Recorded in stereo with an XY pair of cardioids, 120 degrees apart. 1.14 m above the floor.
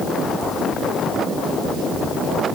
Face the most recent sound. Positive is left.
No sound to turn to.